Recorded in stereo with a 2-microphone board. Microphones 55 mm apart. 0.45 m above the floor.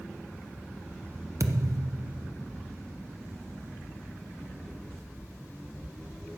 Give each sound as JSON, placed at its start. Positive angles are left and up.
{"t": 1.4, "sound": "a thud", "side_deg": -65, "distance_m": 0.9}